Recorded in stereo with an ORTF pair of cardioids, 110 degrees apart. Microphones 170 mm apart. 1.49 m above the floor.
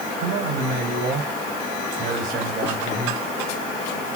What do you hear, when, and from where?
0.2 s a man speaking: 70° right, 5 m; by 3.2 s 50° right, 4 m